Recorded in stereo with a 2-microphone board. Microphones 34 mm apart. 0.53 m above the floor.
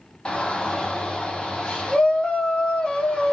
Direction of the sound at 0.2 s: 30° left (ahead or behind).